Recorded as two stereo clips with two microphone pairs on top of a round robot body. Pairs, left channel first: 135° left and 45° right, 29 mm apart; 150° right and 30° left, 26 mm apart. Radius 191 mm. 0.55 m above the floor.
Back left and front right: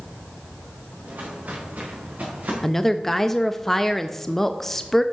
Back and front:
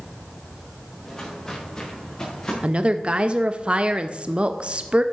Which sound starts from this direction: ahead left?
A woman speaking, at 2.6 s.